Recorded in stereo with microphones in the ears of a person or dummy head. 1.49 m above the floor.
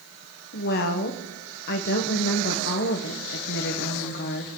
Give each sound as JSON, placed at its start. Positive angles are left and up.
{"t": 0.5, "sound": "a woman speaking", "side_deg": 50, "distance_m": 1.3}